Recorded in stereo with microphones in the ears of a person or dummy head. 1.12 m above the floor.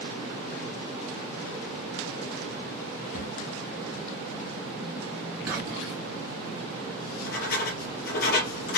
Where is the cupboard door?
50° left (ahead or behind), 0.9 m.